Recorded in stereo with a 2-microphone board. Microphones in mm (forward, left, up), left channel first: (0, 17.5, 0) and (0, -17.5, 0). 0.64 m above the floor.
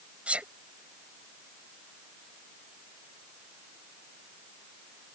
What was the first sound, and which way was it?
A sneeze, 40° right (ahead or behind).